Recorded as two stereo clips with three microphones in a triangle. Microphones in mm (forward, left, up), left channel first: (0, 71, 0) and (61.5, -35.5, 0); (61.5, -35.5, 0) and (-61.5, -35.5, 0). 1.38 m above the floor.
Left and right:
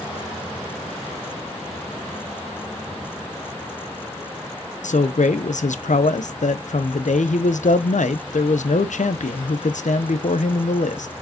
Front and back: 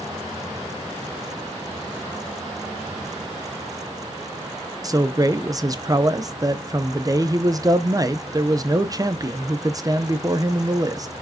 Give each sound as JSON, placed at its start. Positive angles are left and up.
{"t": 4.8, "sound": "a man speaking", "azimuth_deg": 120, "distance_m": 0.6}